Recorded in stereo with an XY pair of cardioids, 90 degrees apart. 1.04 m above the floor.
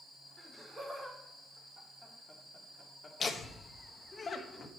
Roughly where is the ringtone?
I don't hear a ringtone.